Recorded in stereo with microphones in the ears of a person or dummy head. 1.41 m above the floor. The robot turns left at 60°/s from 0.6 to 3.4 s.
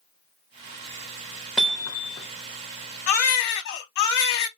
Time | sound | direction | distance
1.6 | hammering | 5° right (ahead or behind) | 0.7 m
3.1 | a baby crying | 40° left (ahead or behind) | 1.4 m